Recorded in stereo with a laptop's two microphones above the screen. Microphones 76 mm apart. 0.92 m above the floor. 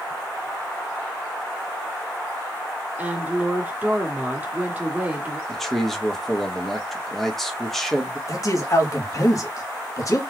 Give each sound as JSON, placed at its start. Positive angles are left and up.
{"t": 3.0, "sound": "a woman speaking", "side_deg": -20, "distance_m": 2.5}
{"t": 5.5, "sound": "a man speaking", "side_deg": 0, "distance_m": 1.8}
{"t": 8.3, "sound": "a man speaking", "side_deg": 45, "distance_m": 1.7}